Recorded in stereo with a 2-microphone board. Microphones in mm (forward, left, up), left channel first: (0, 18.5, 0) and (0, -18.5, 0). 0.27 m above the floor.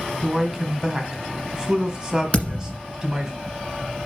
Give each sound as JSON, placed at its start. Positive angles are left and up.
{"t": 0.2, "sound": "a man speaking", "side_deg": -25, "distance_m": 1.8}
{"t": 2.3, "sound": "a thud", "side_deg": 40, "distance_m": 1.7}